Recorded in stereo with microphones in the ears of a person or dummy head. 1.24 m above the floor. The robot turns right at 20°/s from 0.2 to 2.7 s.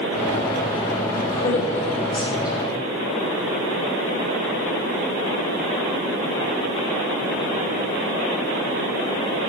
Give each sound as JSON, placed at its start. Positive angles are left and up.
{"t": 1.1, "sound": "a woman speaking", "side_deg": 20, "distance_m": 3.0}